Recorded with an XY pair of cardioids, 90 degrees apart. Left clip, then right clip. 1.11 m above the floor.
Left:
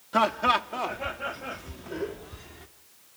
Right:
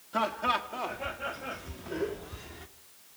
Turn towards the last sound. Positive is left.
turn(degrees=-10)